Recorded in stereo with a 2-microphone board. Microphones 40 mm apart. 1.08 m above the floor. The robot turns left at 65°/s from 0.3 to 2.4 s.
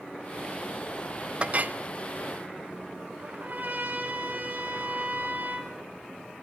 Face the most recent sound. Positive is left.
turn(degrees=-50)  # may be behind; listen again after turning